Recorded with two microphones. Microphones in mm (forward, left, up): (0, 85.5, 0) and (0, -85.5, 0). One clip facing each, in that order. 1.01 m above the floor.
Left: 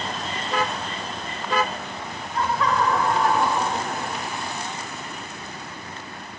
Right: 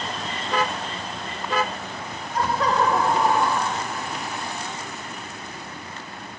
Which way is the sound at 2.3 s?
40° right (ahead or behind).